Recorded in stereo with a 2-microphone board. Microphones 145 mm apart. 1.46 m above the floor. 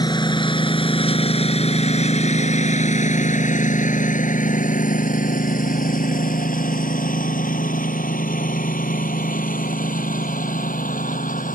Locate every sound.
0.0 s a lawn mower: 30° left (ahead or behind); by 11.6 s 70° left (ahead or behind)